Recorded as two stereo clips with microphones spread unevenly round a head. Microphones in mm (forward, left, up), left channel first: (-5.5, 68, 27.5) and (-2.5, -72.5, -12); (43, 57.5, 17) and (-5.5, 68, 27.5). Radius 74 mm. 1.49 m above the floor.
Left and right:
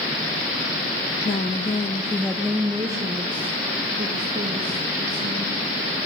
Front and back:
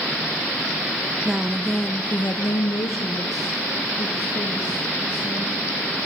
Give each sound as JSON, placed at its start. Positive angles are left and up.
{"t": 1.2, "sound": "a woman speaking", "azimuth_deg": 105, "distance_m": 0.7}